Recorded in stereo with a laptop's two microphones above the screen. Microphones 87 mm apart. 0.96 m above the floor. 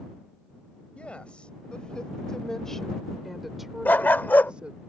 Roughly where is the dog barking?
Left.